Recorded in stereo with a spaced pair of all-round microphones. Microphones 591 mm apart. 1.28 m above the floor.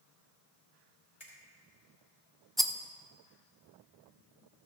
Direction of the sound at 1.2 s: 80° left.